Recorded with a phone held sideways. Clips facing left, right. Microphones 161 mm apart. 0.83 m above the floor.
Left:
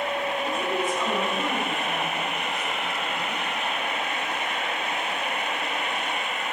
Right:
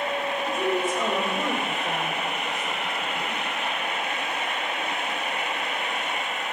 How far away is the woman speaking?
About 3 m.